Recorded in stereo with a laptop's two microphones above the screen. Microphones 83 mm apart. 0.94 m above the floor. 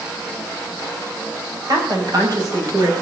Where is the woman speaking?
50° right (ahead or behind), 6 m; by 2.9 s 45° right (ahead or behind), 6.5 m.